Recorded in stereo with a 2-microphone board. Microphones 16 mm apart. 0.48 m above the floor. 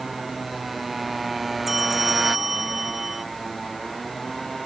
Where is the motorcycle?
10° right (ahead or behind); by 4.7 s 5° left (ahead or behind).